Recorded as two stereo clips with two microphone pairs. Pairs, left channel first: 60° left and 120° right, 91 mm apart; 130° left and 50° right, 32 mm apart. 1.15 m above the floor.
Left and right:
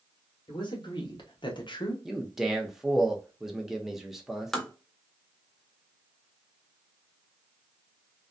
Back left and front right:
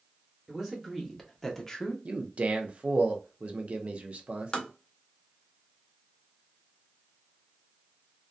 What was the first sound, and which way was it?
A man speaking, 30° left.